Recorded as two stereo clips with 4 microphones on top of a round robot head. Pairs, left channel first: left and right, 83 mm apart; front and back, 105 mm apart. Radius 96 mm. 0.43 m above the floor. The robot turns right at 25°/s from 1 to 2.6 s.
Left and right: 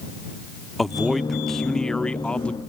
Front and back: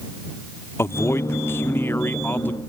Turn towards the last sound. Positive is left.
turn(degrees=40)